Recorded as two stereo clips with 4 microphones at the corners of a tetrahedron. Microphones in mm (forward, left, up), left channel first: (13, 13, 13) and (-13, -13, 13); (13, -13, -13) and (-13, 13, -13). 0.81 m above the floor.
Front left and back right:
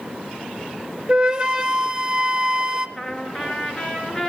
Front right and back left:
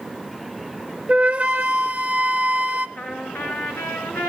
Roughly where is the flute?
Behind.